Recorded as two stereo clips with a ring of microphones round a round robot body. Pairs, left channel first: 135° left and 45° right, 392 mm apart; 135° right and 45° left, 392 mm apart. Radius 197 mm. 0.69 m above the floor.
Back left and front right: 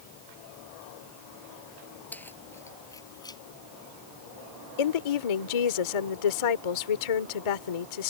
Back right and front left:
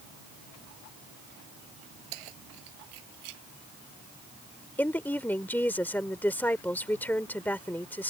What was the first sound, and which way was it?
Keys jangling, 50° left.